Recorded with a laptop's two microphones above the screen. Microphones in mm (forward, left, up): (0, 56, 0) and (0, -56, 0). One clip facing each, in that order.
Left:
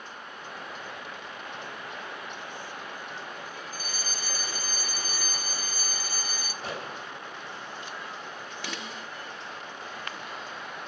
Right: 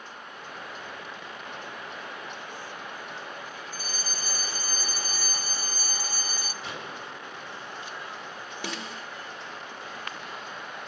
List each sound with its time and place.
3.7 s a fire alarm: 30° right (ahead or behind), 3.5 m
6.6 s a gunshot: 45° left (ahead or behind), 5 m
8.6 s a snare drum: 40° right (ahead or behind), 3.5 m